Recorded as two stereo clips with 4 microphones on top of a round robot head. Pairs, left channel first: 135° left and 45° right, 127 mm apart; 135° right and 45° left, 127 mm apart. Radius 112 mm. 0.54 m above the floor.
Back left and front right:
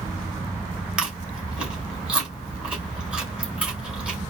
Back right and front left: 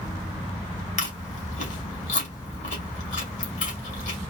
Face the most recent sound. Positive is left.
turn(degrees=-125)